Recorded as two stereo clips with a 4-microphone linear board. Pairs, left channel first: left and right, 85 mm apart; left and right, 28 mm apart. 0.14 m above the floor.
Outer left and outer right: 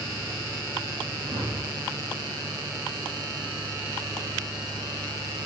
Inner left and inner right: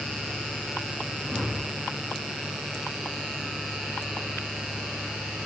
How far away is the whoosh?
About 3.5 m.